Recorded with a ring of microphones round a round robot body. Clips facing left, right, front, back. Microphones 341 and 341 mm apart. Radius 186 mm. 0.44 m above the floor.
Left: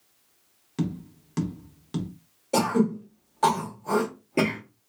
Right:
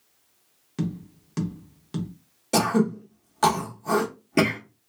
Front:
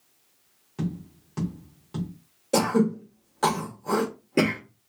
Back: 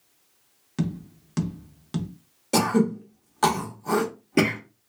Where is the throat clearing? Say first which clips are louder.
Right 1 dB, even; 120° right, 0.8 m.